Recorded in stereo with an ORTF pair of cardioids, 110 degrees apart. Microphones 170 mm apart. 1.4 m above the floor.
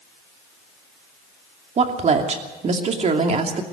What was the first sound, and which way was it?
A woman speaking, 40° right.